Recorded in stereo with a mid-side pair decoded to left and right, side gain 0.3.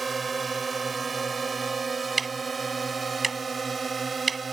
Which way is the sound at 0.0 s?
50° right.